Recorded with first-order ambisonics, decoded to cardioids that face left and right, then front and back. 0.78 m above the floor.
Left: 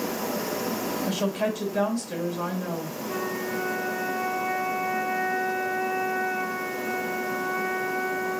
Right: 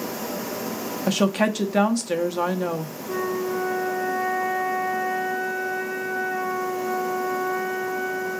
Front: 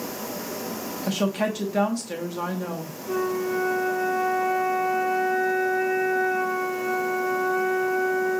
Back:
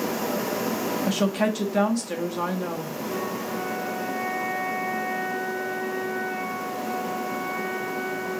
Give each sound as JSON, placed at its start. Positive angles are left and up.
{"t": 1.1, "sound": "a woman speaking", "azimuth_deg": -95, "distance_m": 0.8}
{"t": 3.1, "sound": "a flute", "azimuth_deg": -25, "distance_m": 2.5}